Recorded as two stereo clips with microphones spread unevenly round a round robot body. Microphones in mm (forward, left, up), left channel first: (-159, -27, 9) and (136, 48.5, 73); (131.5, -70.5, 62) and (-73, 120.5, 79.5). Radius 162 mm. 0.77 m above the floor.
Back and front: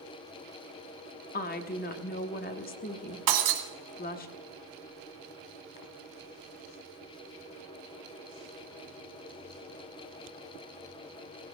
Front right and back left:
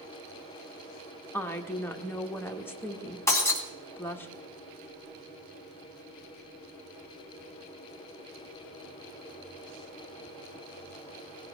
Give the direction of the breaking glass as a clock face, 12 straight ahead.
11 o'clock.